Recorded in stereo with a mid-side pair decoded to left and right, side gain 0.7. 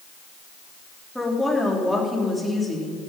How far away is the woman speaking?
About 4 m.